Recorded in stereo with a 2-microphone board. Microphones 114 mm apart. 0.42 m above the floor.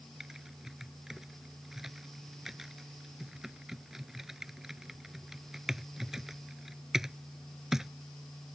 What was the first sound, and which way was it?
Typing on a keyboard, 5° right (ahead or behind).